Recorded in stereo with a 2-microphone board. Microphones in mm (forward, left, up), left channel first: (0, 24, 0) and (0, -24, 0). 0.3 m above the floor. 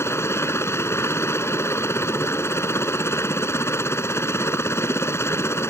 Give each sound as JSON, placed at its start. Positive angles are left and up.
{"t": 0.0, "sound": "a helicopter", "side_deg": 65}